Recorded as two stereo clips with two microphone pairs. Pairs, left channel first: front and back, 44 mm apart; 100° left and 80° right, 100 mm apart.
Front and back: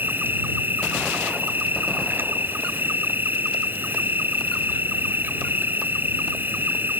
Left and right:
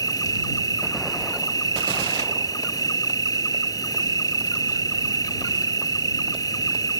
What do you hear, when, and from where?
0.0 s an insect: 150° left